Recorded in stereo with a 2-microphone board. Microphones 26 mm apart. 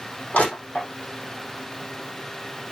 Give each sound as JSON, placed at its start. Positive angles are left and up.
{"t": 0.3, "sound": "crushing", "side_deg": 80, "distance_m": 5.5}